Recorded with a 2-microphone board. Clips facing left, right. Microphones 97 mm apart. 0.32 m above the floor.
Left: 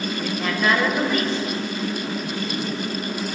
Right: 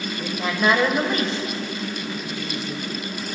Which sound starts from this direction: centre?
A woman speaking, at 0.2 s.